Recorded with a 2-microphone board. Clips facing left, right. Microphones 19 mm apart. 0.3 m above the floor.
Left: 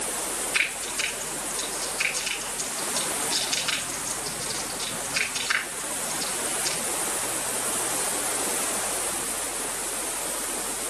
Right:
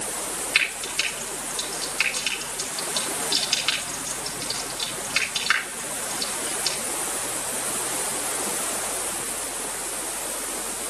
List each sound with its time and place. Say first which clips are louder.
0.6 s frying: right 3 dB; 30° right (ahead or behind), 4.5 m